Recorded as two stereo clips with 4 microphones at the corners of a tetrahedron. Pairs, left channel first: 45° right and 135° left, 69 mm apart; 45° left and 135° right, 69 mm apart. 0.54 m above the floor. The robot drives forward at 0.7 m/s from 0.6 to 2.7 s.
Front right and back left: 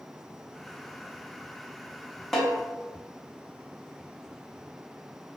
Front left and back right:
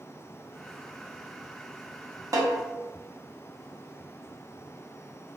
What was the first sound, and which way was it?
A snare drum, 130° right.